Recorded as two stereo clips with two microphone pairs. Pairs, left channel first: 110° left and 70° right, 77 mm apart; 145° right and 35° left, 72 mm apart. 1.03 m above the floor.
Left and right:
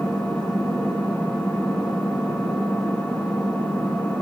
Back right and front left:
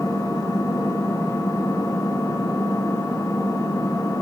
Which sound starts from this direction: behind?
An engine running, at 0.0 s.